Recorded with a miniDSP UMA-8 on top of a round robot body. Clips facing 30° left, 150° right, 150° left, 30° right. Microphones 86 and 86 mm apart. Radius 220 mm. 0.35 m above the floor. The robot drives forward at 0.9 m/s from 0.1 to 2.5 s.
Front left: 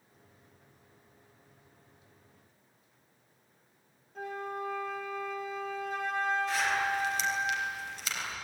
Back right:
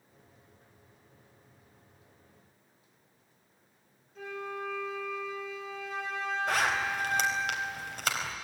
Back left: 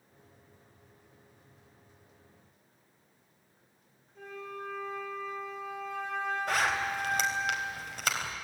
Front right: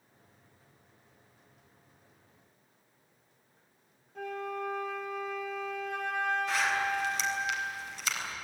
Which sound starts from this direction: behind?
A zipper, at 6.5 s.